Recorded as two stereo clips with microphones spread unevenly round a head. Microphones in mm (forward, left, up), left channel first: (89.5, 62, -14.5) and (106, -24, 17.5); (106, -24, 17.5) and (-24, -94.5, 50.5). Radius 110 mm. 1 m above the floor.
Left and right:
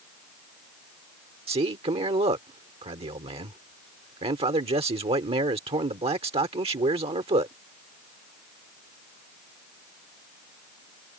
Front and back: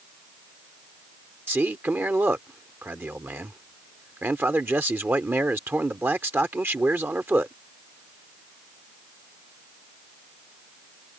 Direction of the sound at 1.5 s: 75° right.